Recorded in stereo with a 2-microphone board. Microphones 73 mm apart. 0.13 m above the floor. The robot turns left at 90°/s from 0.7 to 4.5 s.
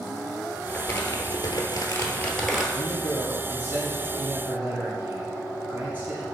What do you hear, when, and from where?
0.7 s crumpling: 165° left, 0.8 m; by 2.6 s 10° right, 0.8 m
2.7 s a man speaking: 125° left, 2.0 m; by 6.2 s 35° right, 2.0 m